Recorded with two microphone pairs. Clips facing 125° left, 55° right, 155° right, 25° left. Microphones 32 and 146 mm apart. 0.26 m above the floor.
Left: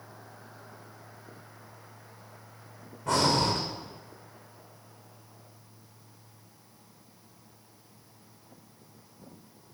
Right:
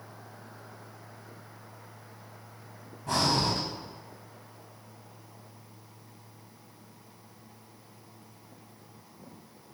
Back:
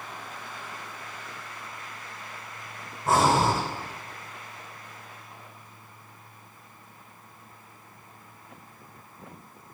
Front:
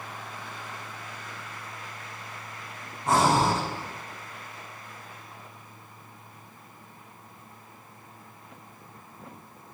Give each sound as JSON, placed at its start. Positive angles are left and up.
{"t": 3.1, "sound": "breathing", "azimuth_deg": 115, "distance_m": 2.5}